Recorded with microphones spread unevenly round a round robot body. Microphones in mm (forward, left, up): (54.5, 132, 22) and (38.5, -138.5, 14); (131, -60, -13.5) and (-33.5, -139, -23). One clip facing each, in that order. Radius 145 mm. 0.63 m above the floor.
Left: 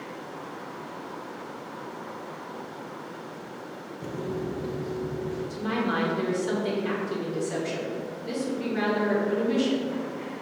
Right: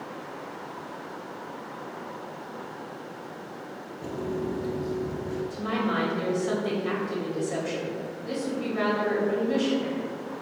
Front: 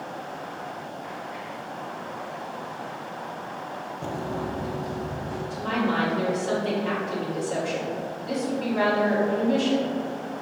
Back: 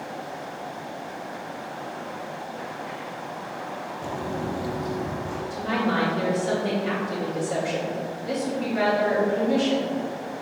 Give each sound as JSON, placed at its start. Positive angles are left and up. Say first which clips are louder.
{"t": 4.0, "sound": "footsteps", "louder": "right 1 dB, even", "azimuth_deg": 20, "distance_m": 0.6}
{"t": 5.5, "sound": "a woman speaking", "louder": "left 1 dB, even", "azimuth_deg": 140, "distance_m": 2.0}